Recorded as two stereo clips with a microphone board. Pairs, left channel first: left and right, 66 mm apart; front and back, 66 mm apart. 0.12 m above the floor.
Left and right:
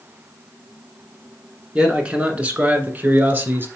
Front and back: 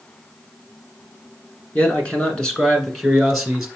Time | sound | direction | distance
1.8 | a man speaking | 35° right | 1.6 m